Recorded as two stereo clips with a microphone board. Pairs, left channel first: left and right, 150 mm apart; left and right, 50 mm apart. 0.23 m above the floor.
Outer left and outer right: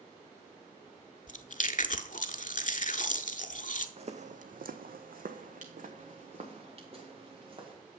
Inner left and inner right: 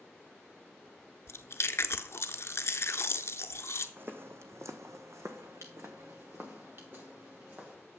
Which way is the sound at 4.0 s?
45° right (ahead or behind).